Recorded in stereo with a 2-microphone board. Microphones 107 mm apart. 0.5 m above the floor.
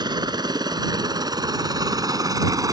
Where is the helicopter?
45° right (ahead or behind); by 2.7 s 35° right (ahead or behind).